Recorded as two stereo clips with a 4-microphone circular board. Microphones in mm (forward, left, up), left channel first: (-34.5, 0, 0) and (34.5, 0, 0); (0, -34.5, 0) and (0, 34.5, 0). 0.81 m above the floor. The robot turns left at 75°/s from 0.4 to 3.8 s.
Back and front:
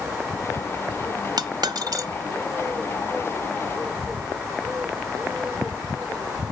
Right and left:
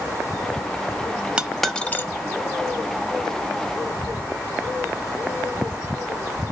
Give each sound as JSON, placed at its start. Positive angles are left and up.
{"t": 1.4, "sound": "a dropped coin", "azimuth_deg": 15, "distance_m": 0.7}